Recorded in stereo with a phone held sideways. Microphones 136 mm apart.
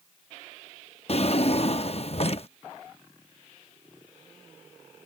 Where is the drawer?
50° left (ahead or behind).